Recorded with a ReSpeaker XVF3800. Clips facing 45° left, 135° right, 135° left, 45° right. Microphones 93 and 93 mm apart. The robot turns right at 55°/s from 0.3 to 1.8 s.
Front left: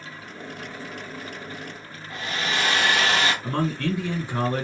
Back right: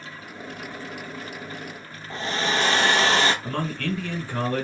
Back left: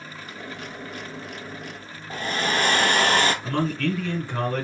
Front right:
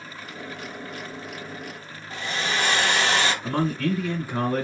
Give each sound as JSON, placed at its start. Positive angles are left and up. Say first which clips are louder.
{"t": 2.1, "sound": "a hair dryer", "louder": "back right 3 dB, back left 3 dB", "azimuth_deg": 170, "distance_m": 0.9}
{"t": 3.4, "sound": "a man speaking", "louder": "front left 3 dB, even", "azimuth_deg": 15, "distance_m": 1.6}